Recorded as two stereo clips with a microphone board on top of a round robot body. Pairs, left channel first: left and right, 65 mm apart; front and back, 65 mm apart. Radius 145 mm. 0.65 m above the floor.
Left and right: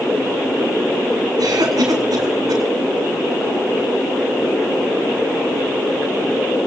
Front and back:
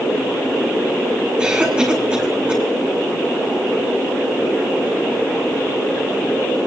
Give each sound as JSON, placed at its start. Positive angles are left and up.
{"t": 1.4, "sound": "a cough", "azimuth_deg": -105, "distance_m": 5.0}